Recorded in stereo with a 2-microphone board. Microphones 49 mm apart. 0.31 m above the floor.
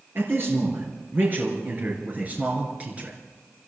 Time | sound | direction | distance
0.1 | a man speaking | 50° right (ahead or behind) | 4.5 m